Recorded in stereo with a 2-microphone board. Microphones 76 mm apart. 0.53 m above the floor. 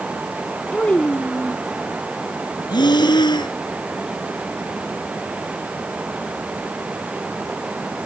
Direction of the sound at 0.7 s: 20° left (ahead or behind).